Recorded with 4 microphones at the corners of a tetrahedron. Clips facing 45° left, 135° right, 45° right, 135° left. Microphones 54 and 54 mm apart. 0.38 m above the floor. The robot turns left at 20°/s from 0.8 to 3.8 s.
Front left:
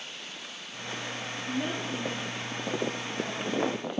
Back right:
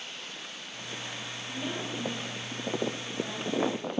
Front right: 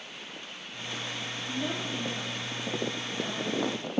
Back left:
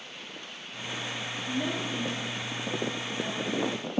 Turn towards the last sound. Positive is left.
turn(degrees=35)